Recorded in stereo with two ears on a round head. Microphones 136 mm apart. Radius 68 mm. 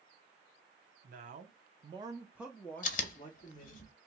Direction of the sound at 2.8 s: 55° left (ahead or behind).